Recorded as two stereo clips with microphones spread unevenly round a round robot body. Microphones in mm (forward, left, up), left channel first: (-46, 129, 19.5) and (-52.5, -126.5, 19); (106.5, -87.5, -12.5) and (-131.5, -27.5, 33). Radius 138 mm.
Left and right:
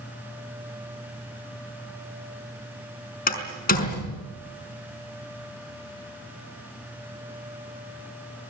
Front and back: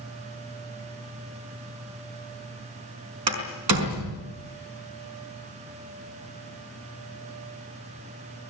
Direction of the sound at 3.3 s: 145° left.